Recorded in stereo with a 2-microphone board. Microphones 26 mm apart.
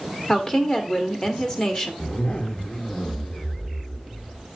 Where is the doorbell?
No doorbell in this recording.